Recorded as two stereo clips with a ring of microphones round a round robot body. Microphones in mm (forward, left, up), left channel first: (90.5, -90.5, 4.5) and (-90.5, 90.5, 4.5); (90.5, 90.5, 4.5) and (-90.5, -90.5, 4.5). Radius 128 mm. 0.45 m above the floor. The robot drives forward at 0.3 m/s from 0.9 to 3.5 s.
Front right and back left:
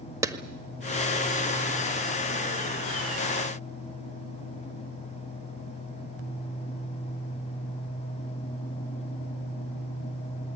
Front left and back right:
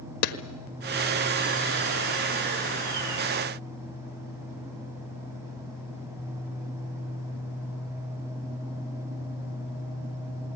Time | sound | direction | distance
0.2 | a clap | 60° left | 1.5 m